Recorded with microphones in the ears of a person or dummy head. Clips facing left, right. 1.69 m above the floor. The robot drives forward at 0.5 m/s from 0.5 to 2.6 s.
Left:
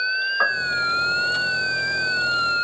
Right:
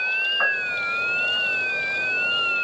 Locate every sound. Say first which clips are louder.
0.4 s a piano: left 3 dB; 50° left (ahead or behind), 3 m; by 0.9 s 45° left (ahead or behind), 3 m